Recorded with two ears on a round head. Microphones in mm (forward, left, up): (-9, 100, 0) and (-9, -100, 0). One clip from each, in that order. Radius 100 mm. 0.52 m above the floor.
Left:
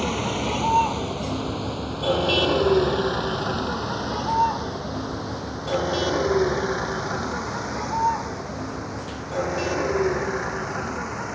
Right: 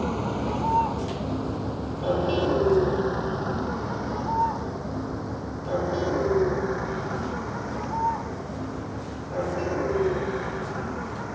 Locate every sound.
0.0 s a vehicle: 80° left; by 11.3 s 70° left (ahead or behind)